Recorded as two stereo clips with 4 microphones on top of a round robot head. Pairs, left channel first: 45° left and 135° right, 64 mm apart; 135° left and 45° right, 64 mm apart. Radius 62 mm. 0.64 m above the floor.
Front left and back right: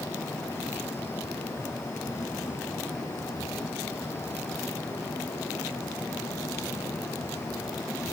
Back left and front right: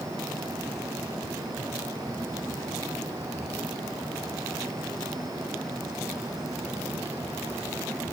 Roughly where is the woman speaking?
No woman speaking in this recording.